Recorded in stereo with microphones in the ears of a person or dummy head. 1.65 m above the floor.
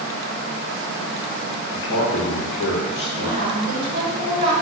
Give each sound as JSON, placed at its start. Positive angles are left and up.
{"t": 1.7, "sound": "a man speaking", "side_deg": 60, "distance_m": 0.8}
{"t": 3.2, "sound": "a woman speaking", "side_deg": -40, "distance_m": 1.7}